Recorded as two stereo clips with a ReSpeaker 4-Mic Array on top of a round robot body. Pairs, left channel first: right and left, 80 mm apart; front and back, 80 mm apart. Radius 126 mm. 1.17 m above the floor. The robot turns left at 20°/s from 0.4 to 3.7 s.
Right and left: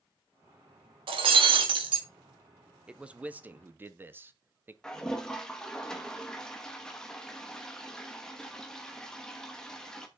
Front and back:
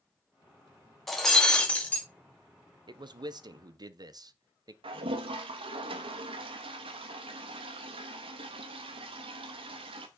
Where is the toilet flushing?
175° right, 0.9 m.